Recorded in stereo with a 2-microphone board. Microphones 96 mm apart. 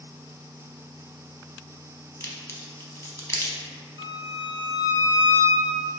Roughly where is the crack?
Left.